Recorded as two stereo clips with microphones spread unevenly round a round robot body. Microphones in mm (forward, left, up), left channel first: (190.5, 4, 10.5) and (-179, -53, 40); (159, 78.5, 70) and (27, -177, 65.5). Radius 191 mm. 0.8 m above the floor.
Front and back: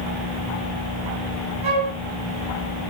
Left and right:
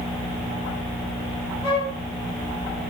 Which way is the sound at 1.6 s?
165° left.